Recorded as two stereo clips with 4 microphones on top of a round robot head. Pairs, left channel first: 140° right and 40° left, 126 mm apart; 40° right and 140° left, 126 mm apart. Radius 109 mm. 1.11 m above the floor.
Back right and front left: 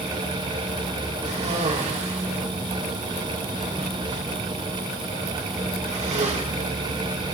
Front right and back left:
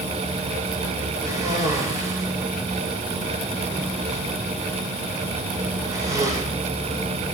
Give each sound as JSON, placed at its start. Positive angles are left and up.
{"t": 1.2, "sound": "a cough", "azimuth_deg": 75, "distance_m": 5.5}